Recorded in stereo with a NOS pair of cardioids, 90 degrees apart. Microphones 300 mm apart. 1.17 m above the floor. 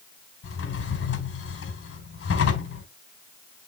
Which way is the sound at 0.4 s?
45° left.